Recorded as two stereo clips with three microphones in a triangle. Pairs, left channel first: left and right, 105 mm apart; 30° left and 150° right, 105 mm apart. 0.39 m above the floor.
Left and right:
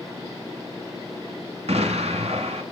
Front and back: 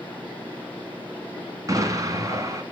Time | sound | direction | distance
1.7 | an explosion | 95° right | 1.6 m